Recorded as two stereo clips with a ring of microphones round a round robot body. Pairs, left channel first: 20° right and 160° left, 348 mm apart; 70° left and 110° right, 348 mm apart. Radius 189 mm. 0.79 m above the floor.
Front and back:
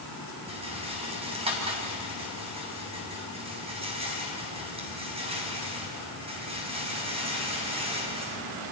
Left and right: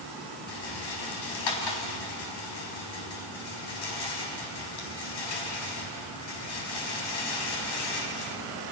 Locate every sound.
0.5 s a rattle: 85° left, 3.5 m